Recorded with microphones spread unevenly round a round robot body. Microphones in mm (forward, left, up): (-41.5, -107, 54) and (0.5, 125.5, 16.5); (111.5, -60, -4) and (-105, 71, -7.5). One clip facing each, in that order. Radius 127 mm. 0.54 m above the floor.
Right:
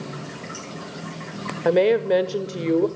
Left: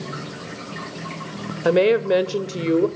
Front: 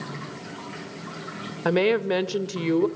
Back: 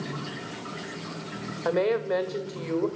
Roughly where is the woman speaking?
Ahead.